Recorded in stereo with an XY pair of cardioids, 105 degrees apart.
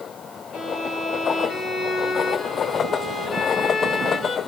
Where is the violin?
65° left, 5.5 m.